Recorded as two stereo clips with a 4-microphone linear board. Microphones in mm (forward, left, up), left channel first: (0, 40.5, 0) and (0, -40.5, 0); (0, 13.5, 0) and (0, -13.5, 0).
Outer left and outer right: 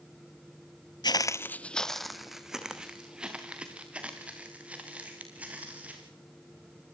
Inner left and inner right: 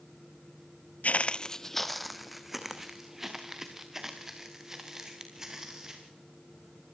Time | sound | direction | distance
1.0 | footsteps | 60° left (ahead or behind) | 0.6 m